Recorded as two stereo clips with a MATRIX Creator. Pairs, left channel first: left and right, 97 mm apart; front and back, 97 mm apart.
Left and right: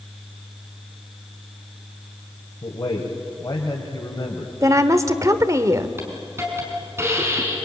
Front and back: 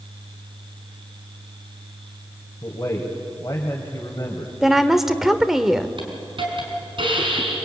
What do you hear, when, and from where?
2.6 s a man speaking: 55° left, 2.5 m
4.6 s a woman speaking: 95° right, 1.2 m
6.0 s a hiss: 155° right, 5 m